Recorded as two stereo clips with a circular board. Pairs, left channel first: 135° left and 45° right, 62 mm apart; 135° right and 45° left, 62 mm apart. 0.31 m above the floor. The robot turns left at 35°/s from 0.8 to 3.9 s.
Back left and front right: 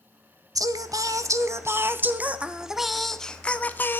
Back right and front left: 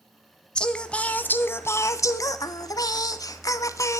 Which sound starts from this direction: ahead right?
Singing, at 0.6 s.